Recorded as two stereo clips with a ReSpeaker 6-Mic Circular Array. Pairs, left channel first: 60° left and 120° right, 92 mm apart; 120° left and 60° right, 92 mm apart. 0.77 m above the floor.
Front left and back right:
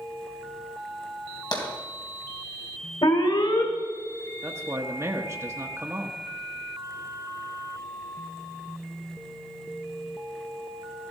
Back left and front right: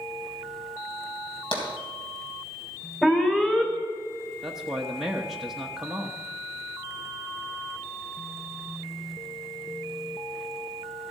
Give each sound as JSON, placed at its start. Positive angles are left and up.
{"t": 1.5, "sound": "tapping", "azimuth_deg": 100, "distance_m": 3.0}
{"t": 3.0, "sound": "an alarm", "azimuth_deg": 40, "distance_m": 2.0}
{"t": 4.4, "sound": "a man speaking", "azimuth_deg": -140, "distance_m": 1.1}